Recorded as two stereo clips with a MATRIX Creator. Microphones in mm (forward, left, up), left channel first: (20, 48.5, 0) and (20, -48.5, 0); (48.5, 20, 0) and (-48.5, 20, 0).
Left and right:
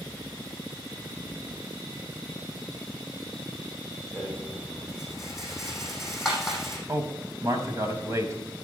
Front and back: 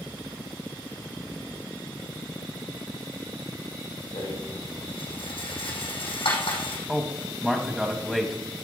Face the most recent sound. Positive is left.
turn(degrees=-90)